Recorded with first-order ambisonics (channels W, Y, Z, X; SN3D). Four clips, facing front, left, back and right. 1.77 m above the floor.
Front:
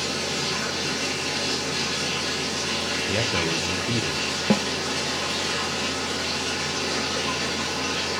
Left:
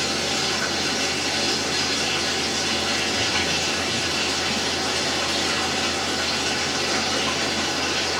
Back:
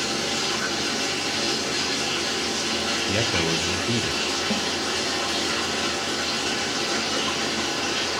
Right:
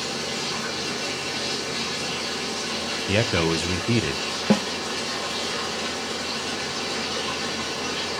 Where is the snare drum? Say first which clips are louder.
Right 4 dB, front 3 dB; 55° right, 0.9 m.